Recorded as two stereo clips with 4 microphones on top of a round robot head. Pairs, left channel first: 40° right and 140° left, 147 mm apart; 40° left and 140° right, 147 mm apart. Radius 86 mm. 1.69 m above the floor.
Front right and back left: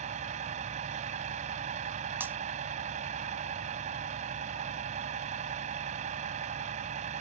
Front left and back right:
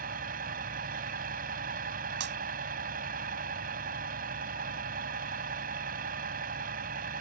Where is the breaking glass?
140° right.